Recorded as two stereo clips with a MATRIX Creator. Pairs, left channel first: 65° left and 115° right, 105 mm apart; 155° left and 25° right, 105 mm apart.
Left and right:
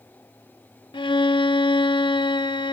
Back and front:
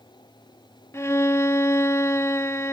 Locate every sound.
0.9 s a violin: 95° left, 0.5 m